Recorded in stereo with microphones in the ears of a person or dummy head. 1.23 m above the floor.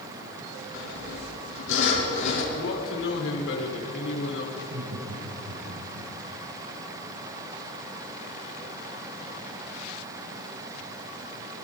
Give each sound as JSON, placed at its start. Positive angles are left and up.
{"t": 0.7, "sound": "sawing", "side_deg": 75, "distance_m": 7.0}
{"t": 2.5, "sound": "a man speaking", "side_deg": 80, "distance_m": 4.5}
{"t": 4.5, "sound": "laughter", "side_deg": -80, "distance_m": 5.5}